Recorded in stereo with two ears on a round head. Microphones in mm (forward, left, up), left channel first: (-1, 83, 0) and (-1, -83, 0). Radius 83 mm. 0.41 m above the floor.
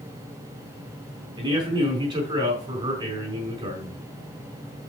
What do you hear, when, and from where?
1.4 s a man speaking: 30° right (ahead or behind), 4.5 m